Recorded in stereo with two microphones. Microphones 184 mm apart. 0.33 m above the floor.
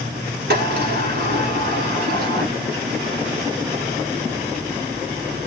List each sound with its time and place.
0.5 s a sliding door: 60° right (ahead or behind), 1.2 m